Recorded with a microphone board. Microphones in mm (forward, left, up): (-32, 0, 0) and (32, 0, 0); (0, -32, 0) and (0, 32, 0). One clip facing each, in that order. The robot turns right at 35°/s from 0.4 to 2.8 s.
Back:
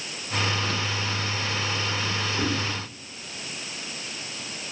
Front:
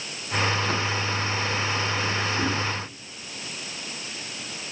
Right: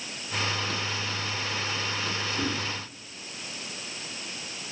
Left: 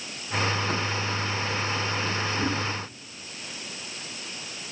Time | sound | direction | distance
2.4 | a whoosh | 65° right | 2.0 m